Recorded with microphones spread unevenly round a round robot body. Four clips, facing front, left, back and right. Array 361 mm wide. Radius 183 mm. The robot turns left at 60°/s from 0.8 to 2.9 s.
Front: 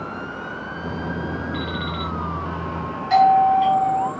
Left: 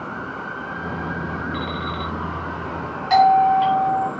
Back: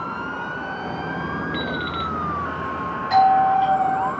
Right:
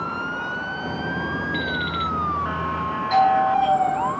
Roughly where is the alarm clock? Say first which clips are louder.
Right 1 dB, back 1 dB; behind right.